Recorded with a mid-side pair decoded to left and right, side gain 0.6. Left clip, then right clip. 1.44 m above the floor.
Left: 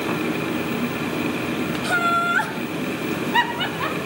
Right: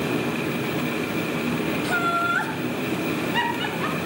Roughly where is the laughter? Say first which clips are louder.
Left 4 dB; ahead left.